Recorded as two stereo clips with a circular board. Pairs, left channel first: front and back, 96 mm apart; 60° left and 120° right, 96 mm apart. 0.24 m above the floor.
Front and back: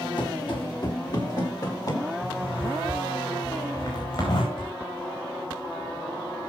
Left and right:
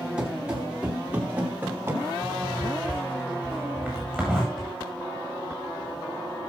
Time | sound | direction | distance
0.2 | running footsteps | 40° right | 4.5 m
2.2 | a zipper | 40° right | 9 m
4.6 | a drawer | 35° right | 7 m